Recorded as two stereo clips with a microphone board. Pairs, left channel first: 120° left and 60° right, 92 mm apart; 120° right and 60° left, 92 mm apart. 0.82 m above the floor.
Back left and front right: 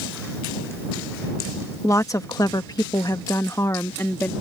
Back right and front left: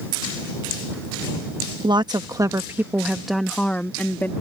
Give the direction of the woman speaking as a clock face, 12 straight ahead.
10 o'clock.